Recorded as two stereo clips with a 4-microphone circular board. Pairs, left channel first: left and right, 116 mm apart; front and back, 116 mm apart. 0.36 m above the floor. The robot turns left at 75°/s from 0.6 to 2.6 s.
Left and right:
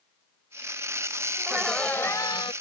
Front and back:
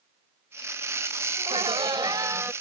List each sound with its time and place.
1.4 s laughter: 160° right; by 2.5 s 115° left